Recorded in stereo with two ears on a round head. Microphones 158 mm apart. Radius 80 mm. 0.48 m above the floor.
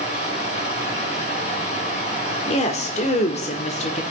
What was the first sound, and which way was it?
Running water, 45° left (ahead or behind).